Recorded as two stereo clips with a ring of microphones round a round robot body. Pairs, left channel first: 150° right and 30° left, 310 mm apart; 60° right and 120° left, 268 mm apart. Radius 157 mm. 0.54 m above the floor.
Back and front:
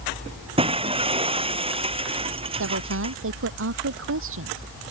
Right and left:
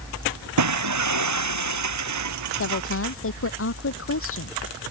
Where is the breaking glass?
105° left.